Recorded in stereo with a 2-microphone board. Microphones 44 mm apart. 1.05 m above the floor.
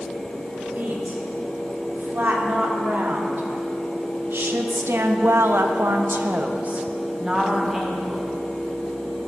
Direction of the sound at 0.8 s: 50° right (ahead or behind).